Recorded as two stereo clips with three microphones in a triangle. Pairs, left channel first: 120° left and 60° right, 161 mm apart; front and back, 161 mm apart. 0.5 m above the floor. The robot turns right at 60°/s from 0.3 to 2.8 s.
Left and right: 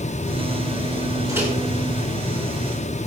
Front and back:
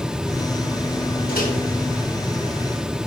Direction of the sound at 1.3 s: 10° left.